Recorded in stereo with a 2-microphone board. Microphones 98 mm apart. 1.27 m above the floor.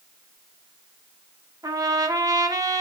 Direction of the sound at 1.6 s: 40° right (ahead or behind).